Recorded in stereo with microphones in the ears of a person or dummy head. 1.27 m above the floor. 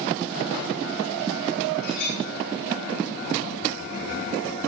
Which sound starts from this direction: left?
A clink, at 1.8 s.